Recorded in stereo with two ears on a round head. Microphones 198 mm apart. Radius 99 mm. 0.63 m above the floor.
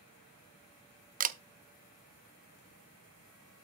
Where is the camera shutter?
40° right (ahead or behind), 0.6 m.